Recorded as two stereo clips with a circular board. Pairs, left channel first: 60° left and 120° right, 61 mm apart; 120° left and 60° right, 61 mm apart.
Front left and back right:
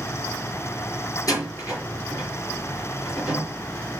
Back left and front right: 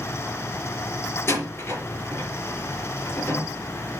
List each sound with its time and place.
1.3 s a door slam: 75° left, 4.5 m